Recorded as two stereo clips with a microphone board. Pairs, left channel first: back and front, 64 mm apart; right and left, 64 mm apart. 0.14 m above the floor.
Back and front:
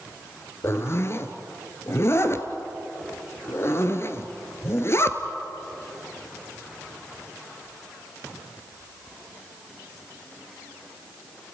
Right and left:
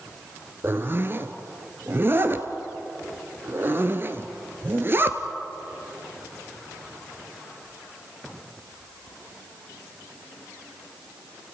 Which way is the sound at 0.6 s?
140° left.